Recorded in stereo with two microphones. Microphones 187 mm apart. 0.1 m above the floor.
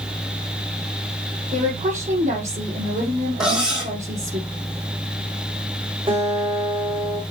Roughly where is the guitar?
Right.